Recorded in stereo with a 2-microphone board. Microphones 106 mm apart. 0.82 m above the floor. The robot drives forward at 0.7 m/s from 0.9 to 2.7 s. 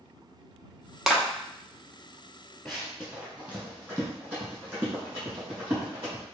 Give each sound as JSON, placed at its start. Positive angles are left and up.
{"t": 1.1, "sound": "a clap", "side_deg": -5, "distance_m": 0.7}
{"t": 2.6, "sound": "running footsteps", "side_deg": 5, "distance_m": 1.0}